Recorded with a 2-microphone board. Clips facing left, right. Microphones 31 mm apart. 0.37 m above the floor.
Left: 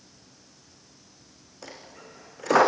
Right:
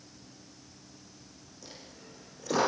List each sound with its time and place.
1.6 s a dropped coin: 65° left (ahead or behind), 3.5 m